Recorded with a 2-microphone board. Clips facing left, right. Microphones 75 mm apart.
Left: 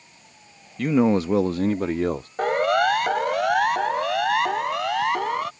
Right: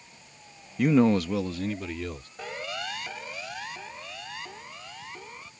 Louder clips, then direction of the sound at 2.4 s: Left 17 dB; 60° left (ahead or behind).